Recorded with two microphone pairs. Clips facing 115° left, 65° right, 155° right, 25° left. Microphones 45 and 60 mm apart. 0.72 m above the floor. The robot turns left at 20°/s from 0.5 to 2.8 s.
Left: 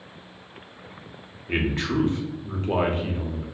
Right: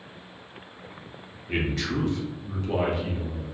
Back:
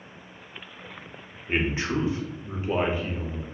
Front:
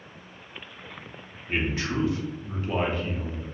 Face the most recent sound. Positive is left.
turn(degrees=145)